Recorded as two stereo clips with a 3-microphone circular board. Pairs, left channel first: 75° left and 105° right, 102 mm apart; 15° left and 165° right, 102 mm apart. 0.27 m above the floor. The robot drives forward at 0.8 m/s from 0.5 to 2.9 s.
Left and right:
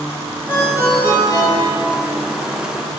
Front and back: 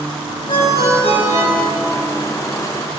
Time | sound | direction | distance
0.5 | a ringtone | 10° left | 2.5 m